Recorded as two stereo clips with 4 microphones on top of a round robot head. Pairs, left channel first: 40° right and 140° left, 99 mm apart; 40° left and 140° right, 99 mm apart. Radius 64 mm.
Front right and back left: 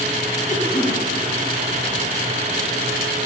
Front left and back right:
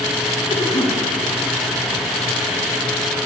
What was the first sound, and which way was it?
A cough, straight ahead.